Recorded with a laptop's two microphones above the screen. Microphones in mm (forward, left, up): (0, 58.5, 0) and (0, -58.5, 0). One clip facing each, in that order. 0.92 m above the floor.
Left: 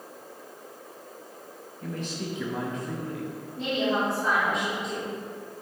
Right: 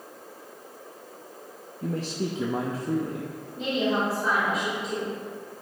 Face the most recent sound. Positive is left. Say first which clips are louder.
# right 1 dB
turn(degrees=0)  # may be behind; listen again after turning